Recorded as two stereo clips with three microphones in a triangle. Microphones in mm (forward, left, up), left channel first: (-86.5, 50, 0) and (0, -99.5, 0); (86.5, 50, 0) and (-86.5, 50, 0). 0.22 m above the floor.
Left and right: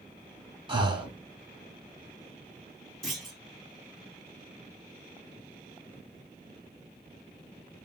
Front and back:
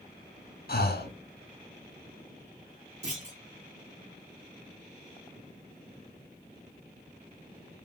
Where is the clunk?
155° right, 2 m.